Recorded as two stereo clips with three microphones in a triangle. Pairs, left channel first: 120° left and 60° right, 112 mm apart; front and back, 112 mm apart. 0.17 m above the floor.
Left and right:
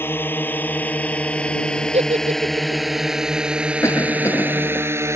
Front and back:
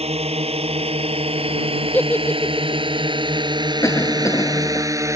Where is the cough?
55° left.